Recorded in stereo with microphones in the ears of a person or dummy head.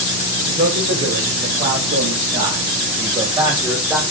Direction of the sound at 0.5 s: 65° right (ahead or behind).